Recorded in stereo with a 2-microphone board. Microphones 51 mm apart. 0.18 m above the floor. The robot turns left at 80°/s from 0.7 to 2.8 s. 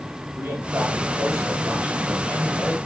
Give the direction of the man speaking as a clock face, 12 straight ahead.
2 o'clock.